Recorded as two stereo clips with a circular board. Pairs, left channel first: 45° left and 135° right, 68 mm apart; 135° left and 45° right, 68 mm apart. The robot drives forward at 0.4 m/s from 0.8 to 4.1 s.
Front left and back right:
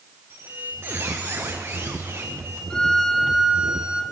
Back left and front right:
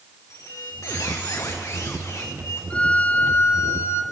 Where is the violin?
100° left, 0.7 m; by 4.0 s 155° left, 0.9 m.